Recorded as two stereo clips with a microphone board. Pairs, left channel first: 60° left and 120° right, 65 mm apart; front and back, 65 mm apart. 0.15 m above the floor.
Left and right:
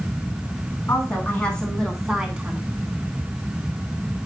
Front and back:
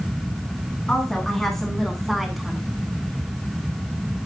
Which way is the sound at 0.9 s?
75° left.